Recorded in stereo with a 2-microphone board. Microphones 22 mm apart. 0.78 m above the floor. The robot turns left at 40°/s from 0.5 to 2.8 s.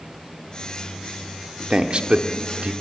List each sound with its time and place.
1.7 s a man speaking: 40° right (ahead or behind), 1.8 m; by 2.7 s 75° right (ahead or behind), 1.8 m